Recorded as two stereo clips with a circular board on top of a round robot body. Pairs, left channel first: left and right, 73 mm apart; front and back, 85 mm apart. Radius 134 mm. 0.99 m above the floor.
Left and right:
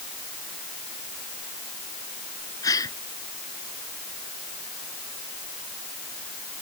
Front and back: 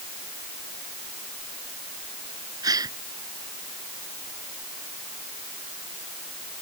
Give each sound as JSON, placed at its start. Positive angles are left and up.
{"t": 2.6, "sound": "a gasp", "azimuth_deg": 135}